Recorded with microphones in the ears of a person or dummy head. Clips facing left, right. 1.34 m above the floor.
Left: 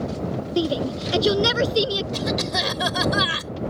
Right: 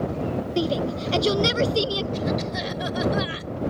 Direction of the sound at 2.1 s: 80° left.